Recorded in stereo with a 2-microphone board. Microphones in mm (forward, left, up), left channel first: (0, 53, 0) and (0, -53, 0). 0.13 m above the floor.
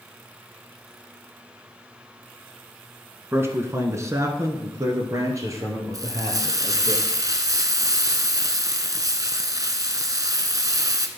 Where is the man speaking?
20° right (ahead or behind), 1.4 m; by 6.9 s 25° right (ahead or behind), 3.5 m.